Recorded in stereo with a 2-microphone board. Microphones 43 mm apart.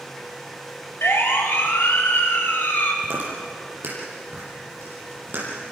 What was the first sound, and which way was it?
A siren, 75° left (ahead or behind).